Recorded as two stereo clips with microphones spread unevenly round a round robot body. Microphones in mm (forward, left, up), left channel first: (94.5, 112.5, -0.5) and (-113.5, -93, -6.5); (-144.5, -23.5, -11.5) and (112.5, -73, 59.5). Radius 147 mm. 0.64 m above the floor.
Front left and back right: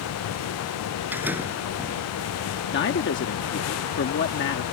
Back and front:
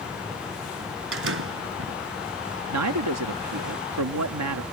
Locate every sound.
1.1 s a door slam: 50° right
2.7 s a man speaking: 5° left